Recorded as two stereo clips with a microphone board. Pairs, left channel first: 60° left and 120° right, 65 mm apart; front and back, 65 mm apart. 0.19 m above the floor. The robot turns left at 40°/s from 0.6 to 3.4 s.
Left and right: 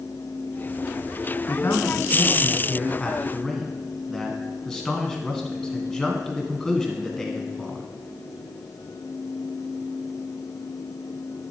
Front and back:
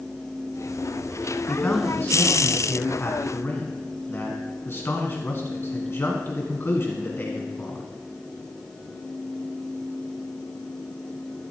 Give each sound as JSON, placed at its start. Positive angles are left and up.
{"t": 1.5, "sound": "a man speaking", "azimuth_deg": 65, "distance_m": 1.6}